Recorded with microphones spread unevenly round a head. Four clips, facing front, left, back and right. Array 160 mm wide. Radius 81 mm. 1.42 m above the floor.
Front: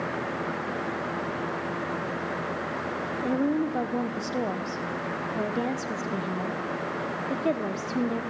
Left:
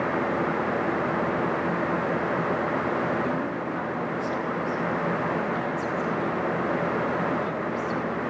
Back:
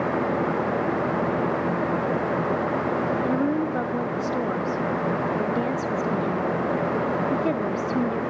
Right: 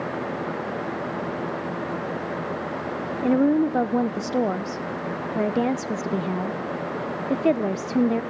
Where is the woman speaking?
95° right, 0.8 m.